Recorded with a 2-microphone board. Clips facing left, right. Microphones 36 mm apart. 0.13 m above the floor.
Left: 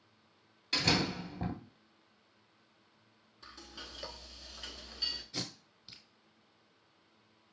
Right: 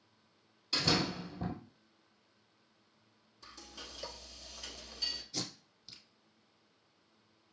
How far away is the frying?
About 0.9 m.